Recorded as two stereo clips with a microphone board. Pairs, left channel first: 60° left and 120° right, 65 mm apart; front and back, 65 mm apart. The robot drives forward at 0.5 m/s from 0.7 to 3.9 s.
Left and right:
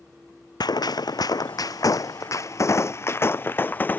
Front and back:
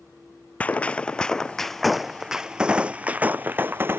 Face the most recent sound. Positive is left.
turn(degrees=120)